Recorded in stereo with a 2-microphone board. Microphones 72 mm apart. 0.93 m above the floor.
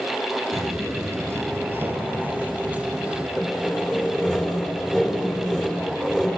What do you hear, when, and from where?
0.5 s footsteps: 45° right (ahead or behind), 1.2 m; by 3.3 s 15° right (ahead or behind), 2.5 m
3.4 s sawing: 10° right (ahead or behind), 4 m